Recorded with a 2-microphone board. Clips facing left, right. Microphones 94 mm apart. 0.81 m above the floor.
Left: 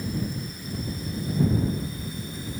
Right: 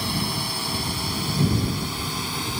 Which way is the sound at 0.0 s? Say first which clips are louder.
Right 3 dB; 80° right.